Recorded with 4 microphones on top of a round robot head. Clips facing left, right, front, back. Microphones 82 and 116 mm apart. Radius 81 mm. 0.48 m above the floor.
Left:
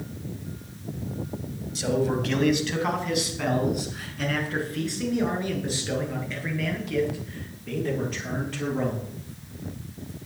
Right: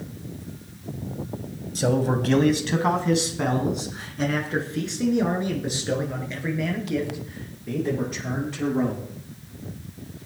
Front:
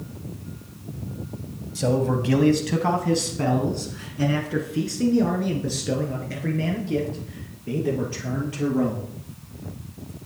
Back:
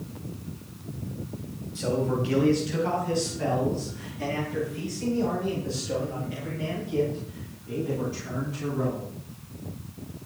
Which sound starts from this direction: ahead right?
A man speaking, at 1.8 s.